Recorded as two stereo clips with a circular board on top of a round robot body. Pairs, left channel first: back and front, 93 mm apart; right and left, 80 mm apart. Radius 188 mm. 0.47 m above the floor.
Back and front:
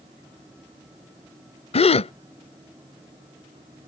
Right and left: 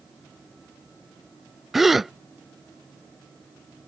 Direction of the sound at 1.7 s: Straight behind.